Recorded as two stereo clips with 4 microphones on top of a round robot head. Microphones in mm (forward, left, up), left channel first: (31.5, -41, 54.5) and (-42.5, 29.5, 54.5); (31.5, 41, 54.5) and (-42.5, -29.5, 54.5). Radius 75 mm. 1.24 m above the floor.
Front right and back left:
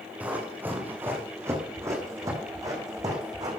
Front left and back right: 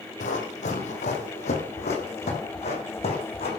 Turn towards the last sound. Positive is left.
turn(degrees=80)